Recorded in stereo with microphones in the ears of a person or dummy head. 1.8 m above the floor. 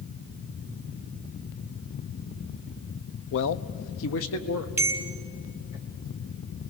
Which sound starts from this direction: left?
A man speaking, at 3.3 s.